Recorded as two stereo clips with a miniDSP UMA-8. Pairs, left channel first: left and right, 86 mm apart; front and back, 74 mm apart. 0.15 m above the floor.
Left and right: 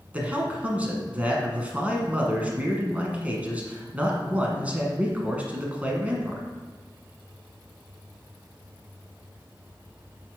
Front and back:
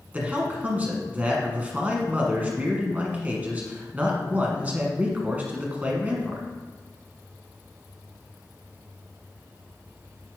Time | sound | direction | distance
0.1 | a man speaking | 145° right | 1.2 m